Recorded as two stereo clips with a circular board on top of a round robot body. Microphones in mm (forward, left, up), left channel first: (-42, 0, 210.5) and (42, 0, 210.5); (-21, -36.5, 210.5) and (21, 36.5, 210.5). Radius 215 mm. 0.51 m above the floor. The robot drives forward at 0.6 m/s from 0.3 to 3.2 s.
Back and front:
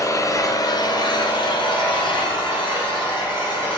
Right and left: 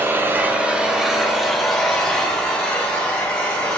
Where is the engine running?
125° left, 1.0 m; by 3.8 s 160° left, 2.5 m.